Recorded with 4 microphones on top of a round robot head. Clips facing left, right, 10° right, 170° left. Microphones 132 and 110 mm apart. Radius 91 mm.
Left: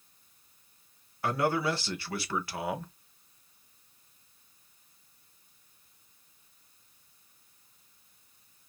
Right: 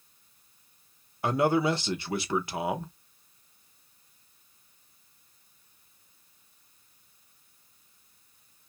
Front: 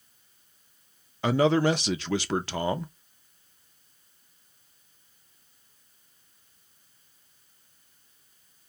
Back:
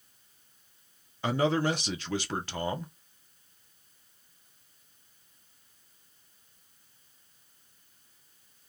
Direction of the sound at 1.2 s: 15° right.